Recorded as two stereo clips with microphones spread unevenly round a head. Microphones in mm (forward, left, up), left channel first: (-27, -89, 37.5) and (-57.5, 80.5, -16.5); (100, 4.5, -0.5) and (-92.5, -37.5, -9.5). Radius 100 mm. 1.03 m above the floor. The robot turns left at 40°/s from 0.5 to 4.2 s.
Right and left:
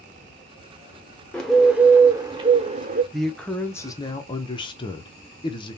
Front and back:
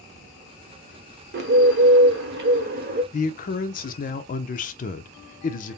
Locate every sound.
1.3 s a bird: 145° right, 1.0 m; by 3.0 s 145° left, 1.0 m
3.1 s a man speaking: 40° left, 0.6 m; by 5.8 s 5° right, 0.6 m